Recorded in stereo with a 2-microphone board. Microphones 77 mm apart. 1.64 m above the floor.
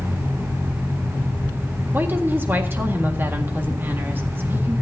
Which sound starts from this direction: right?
A woman speaking, at 1.9 s.